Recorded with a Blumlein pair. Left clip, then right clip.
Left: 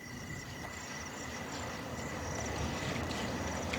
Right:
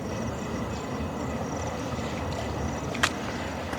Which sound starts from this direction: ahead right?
A vehicle, at 0.0 s.